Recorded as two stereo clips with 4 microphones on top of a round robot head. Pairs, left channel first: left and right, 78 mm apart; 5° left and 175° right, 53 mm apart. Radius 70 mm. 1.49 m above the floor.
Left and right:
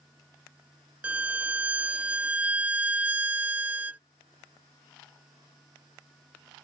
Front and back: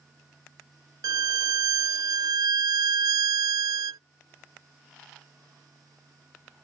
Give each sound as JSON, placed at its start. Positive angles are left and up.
{"t": 1.0, "sound": "a violin", "azimuth_deg": -165}